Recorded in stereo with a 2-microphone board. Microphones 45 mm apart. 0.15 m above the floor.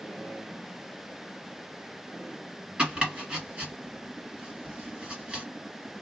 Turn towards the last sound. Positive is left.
turn(degrees=-25)  # may be behind; listen again after turning